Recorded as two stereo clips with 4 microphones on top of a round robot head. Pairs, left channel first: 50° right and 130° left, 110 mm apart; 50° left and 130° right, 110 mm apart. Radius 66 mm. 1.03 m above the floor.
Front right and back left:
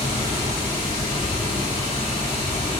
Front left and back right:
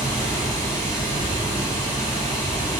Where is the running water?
5° right, 5 m.